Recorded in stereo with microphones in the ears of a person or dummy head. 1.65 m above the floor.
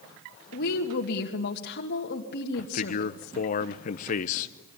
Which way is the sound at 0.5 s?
65° left (ahead or behind).